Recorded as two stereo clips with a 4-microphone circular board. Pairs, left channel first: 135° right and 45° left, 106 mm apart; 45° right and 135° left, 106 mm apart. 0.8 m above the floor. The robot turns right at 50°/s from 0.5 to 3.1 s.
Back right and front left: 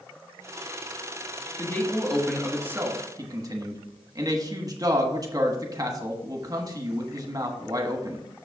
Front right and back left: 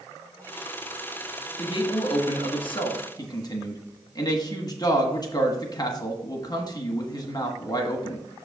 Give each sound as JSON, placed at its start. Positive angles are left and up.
{"t": 1.6, "sound": "a man speaking", "azimuth_deg": -75, "distance_m": 1.2}